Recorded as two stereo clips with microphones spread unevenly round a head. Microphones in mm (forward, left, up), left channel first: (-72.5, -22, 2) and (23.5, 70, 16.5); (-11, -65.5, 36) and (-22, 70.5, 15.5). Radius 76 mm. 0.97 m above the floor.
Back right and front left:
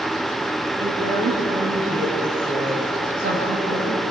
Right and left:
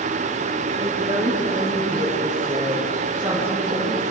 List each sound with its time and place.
0.8 s a woman speaking: 35° left, 8 m